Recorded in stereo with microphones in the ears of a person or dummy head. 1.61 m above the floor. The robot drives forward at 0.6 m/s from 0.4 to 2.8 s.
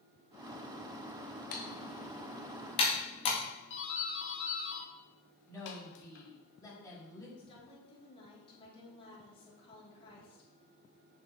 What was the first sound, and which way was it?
Typing on a keyboard, 50° left (ahead or behind).